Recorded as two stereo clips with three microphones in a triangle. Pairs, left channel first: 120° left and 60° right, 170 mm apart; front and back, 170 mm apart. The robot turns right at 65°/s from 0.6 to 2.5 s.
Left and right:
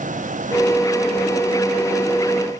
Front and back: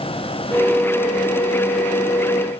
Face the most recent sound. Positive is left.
No sound to turn to.